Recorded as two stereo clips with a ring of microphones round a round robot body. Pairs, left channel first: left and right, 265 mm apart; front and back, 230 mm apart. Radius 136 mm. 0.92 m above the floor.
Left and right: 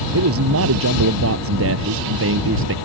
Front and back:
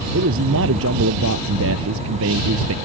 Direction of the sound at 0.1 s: 130° right.